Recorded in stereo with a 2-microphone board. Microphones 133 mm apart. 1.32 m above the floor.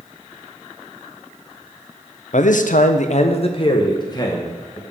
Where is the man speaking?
65° left (ahead or behind), 0.5 m; by 4.8 s 25° left (ahead or behind), 1.4 m.